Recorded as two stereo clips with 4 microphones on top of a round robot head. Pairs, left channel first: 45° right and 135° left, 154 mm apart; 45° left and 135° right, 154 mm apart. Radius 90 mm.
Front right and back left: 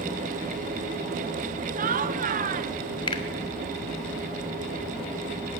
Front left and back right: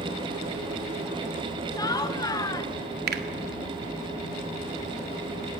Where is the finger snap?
110° right, 1.9 m.